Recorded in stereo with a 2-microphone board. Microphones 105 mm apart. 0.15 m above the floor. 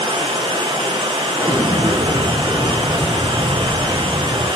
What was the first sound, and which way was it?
Running water, 55° right (ahead or behind).